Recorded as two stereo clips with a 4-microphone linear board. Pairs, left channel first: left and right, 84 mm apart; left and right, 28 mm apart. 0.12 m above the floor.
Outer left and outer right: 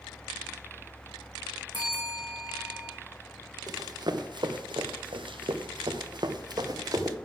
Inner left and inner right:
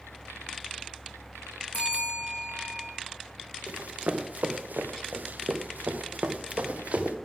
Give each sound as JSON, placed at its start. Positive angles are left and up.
{"t": 1.7, "sound": "a bell", "side_deg": 70, "distance_m": 4.0}
{"t": 3.7, "sound": "running footsteps", "side_deg": -50, "distance_m": 2.0}